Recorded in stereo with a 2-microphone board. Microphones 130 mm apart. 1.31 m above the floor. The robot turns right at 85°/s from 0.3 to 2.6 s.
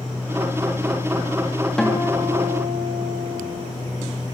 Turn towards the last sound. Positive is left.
turn(degrees=-115)